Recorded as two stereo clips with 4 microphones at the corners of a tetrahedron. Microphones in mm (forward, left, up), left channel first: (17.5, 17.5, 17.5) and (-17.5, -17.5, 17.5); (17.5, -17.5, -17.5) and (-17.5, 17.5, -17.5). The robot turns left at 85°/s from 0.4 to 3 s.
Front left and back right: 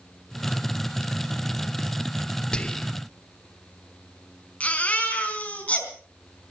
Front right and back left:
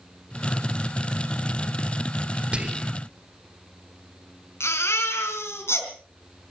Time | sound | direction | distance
2.5 | whispering | 100° left | 0.9 m
4.6 | a baby crying | 15° right | 4 m